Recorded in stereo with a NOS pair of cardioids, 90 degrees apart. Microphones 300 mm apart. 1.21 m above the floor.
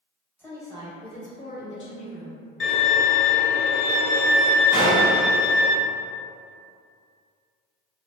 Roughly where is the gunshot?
Ahead.